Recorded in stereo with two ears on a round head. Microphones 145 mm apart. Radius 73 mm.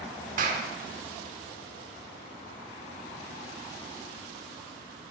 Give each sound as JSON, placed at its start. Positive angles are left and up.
{"t": 0.4, "sound": "a clap", "side_deg": -50, "distance_m": 1.1}